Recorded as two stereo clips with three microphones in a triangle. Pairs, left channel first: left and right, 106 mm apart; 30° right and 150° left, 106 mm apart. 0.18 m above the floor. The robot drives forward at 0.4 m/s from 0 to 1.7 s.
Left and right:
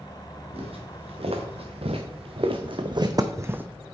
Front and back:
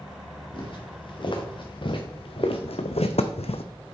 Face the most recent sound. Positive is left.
turn(degrees=-15)